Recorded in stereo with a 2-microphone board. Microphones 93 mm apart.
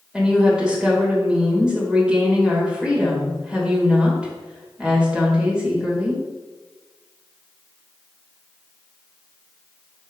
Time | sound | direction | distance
0.1 | a woman speaking | 10° right (ahead or behind) | 2 m